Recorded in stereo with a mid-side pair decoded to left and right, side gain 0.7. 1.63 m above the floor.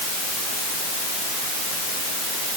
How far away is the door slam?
No door slam in this recording.